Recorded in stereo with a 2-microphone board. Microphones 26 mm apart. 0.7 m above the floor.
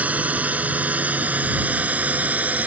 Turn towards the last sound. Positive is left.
turn(degrees=-75)  # may be behind; listen again after turning